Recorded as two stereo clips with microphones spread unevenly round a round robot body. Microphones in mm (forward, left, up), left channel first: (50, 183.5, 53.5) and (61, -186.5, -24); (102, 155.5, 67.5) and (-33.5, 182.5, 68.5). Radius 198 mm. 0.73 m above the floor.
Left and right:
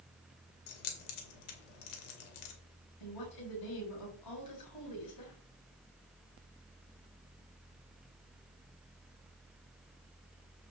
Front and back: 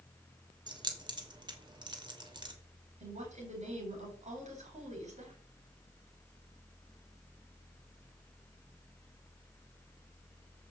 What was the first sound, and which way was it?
Keys jangling, 110° left.